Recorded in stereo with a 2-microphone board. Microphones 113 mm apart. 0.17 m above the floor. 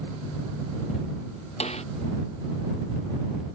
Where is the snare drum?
70° left (ahead or behind).